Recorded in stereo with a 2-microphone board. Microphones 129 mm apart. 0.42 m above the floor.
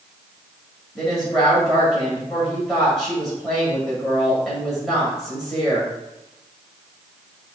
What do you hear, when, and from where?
0.9 s a woman speaking: centre (ahead or behind), 2.5 m